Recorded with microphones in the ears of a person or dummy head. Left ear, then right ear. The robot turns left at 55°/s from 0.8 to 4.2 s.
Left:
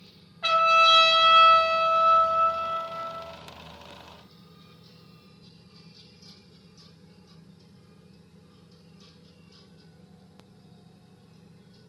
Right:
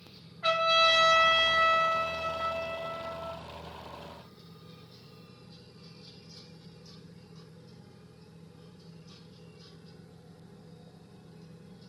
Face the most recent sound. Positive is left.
turn(degrees=-150)